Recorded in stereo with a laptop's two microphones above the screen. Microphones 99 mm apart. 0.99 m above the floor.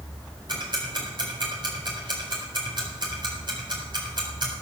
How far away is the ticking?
About 4 m.